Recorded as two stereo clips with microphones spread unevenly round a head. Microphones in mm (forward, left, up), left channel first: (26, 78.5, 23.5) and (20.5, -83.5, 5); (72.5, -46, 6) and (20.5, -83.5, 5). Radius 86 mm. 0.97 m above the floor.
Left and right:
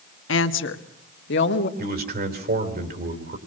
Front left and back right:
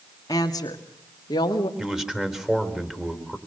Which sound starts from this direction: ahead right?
A man speaking, at 1.8 s.